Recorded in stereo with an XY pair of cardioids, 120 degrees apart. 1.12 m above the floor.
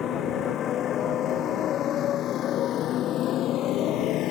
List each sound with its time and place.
0.0 s a motorcycle: 55° left; by 4.3 s 75° left